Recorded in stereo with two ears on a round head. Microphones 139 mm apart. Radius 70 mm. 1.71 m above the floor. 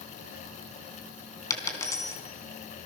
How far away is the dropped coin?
About 3.5 m.